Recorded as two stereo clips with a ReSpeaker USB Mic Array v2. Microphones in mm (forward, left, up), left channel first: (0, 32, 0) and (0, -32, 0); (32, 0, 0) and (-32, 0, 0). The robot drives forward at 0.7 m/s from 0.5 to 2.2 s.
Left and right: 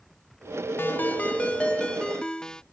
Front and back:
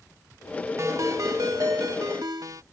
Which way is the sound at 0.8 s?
140° left.